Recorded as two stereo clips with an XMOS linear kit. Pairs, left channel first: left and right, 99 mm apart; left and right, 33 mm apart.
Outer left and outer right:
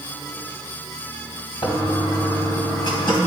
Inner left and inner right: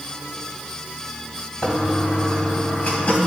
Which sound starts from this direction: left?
A toilet flushing, at 1.6 s.